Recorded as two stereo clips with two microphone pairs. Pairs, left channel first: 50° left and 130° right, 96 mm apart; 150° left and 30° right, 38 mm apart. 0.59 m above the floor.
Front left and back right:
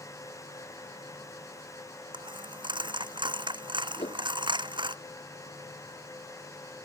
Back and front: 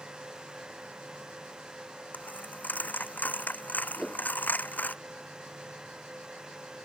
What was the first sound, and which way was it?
A dropped coin, 165° right.